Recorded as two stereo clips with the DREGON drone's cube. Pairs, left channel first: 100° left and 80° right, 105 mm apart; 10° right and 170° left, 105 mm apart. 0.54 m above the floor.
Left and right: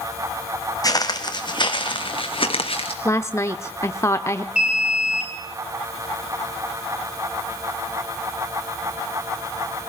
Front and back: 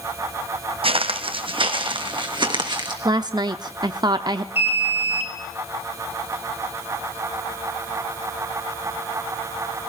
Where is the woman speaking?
150° left, 0.8 m.